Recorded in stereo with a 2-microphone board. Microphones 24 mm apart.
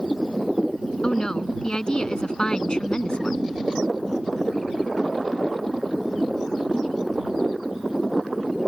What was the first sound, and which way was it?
A woman speaking, 30° left (ahead or behind).